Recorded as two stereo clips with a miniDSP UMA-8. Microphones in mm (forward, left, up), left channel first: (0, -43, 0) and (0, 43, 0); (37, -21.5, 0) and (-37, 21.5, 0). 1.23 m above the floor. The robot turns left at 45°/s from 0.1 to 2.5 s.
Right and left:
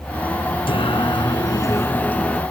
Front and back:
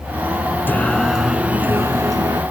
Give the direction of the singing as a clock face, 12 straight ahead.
3 o'clock.